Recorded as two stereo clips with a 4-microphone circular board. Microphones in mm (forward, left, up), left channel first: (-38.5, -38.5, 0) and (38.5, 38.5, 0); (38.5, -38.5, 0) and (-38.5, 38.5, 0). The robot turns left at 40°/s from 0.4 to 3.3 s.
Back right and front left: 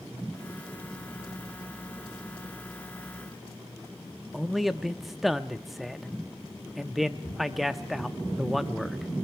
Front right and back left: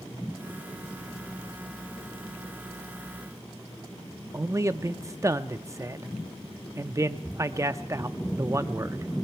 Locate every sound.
4.3 s a man speaking: 135° left, 0.6 m